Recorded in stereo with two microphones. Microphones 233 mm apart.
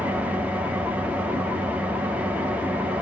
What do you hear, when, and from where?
0.0 s an engine running: 5° right (ahead or behind), 0.8 m